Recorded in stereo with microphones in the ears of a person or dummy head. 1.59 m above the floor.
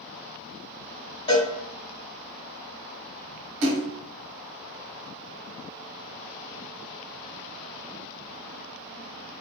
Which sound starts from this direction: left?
A cowbell, at 1.3 s.